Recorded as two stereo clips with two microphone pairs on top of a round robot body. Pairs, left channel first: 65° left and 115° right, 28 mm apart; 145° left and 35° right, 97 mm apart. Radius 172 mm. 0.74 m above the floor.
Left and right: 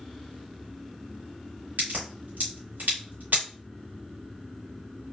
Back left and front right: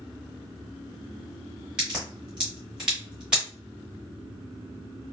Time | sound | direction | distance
1.8 | a crack | 110° right | 0.7 m